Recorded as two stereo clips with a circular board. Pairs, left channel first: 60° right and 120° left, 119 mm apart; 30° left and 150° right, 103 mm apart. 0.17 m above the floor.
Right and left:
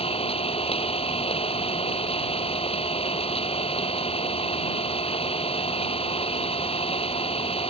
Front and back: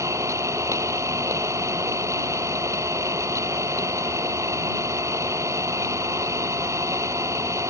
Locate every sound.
0.0 s an engine running: 90° right